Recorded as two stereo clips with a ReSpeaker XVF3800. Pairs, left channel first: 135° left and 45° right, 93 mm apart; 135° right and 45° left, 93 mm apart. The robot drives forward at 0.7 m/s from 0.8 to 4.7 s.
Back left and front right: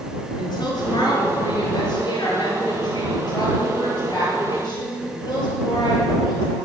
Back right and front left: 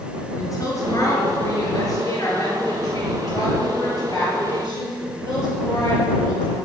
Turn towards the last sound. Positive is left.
turn(degrees=175)